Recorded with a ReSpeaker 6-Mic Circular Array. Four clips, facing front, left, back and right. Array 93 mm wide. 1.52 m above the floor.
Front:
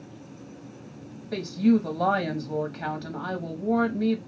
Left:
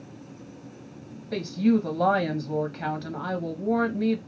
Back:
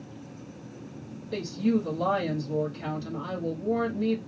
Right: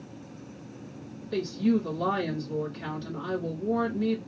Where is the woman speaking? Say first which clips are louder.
Left 3 dB, front 4 dB; 65° left, 0.8 m.